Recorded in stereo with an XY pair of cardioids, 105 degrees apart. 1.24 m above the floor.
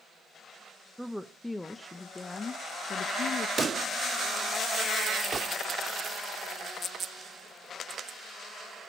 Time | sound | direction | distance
1.0 | a woman speaking | straight ahead | 1.4 m
3.6 | a pop | 40° right | 1.8 m
5.3 | a gunshot | 35° right | 1.7 m